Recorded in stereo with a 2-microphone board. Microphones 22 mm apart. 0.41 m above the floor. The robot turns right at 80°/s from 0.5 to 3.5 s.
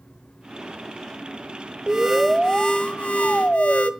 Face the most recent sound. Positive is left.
turn(degrees=95)